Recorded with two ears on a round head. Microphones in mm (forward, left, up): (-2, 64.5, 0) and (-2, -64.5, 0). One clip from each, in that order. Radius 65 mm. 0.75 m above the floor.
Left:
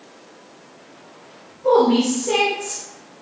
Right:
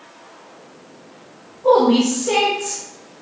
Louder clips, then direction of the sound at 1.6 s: Right 2 dB; 15° right (ahead or behind).